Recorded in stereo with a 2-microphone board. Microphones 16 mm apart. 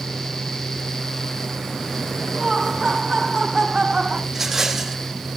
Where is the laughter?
45° right (ahead or behind), 7.5 m; by 4.2 s 50° right (ahead or behind), 6.5 m.